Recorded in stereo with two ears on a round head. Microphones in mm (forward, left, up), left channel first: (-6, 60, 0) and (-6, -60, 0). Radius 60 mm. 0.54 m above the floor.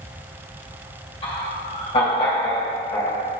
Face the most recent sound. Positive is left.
turn(degrees=25)  # may be behind; listen again after turning